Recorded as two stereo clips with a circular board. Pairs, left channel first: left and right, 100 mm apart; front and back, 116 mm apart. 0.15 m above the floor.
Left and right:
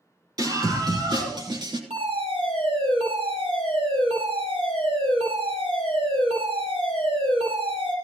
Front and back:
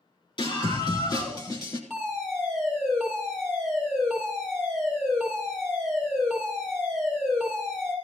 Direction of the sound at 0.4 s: 45° right.